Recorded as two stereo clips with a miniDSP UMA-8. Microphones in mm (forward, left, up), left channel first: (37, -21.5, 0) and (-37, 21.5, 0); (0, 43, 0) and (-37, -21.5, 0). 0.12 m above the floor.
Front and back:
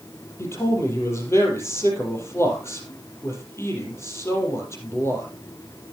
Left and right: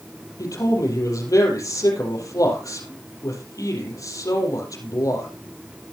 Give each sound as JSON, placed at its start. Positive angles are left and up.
{"t": 0.4, "sound": "a man speaking", "azimuth_deg": 25, "distance_m": 4.0}